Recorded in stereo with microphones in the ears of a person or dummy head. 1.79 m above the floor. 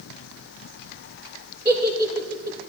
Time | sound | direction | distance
1.6 | a giggle | 20° right (ahead or behind) | 2.5 m